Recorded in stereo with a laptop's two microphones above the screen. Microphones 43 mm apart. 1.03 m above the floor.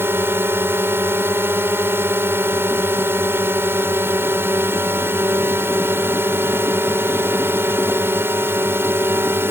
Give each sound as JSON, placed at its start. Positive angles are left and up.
{"t": 0.0, "sound": "a drone", "side_deg": -70}